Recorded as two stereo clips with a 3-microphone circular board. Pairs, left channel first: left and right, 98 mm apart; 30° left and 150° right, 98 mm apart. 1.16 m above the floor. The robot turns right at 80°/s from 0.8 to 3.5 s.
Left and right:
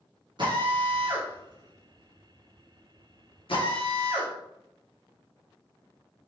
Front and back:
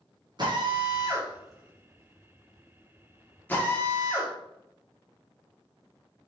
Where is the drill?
115° right, 1.3 m; by 4.3 s 100° left, 1.3 m.